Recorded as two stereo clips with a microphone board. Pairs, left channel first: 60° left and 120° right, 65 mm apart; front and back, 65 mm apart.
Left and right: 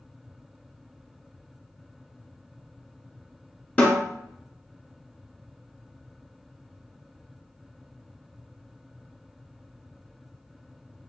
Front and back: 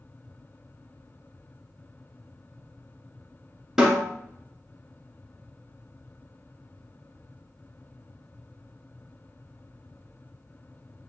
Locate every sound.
3.8 s a snare drum: 105° left, 1.4 m